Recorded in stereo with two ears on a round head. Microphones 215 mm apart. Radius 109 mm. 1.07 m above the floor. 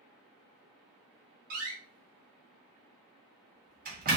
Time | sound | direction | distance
1.5 | a door slam | 40° right (ahead or behind) | 1.4 m